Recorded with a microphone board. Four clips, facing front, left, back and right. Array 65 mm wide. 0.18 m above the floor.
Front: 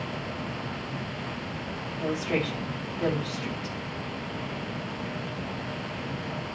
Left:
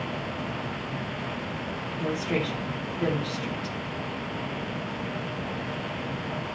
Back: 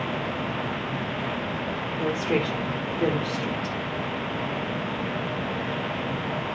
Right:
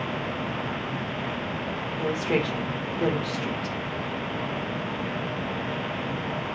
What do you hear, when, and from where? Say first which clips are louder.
2.0 s a woman speaking: right 3 dB, back 3 dB; 120° right, 4 m